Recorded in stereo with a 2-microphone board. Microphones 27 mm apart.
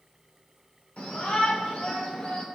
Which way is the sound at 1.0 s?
55° left (ahead or behind).